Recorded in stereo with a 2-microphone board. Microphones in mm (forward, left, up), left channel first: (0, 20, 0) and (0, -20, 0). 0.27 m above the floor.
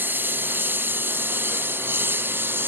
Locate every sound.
0.0 s a lawn mower: 60° right (ahead or behind); by 2.7 s 65° right (ahead or behind)